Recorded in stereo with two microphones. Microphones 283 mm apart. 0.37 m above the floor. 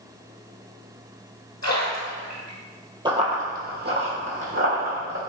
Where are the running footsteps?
15° right (ahead or behind), 0.5 m; by 5.2 s 50° right (ahead or behind), 1.6 m.